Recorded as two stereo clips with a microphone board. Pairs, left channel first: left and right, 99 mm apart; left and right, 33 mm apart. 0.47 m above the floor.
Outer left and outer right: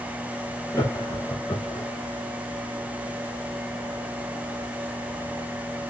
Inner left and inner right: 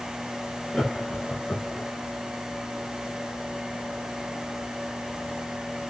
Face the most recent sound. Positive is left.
turn(degrees=30)  # may be behind; listen again after turning